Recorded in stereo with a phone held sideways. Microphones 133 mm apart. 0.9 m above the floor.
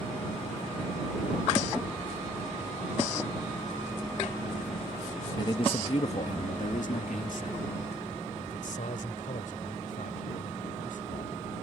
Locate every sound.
5.4 s a man speaking: 30° left (ahead or behind); by 11.3 s 80° left